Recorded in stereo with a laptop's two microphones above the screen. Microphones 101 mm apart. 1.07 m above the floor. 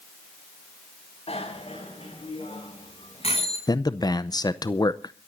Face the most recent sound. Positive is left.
turn(degrees=40)  # may be behind; listen again after turning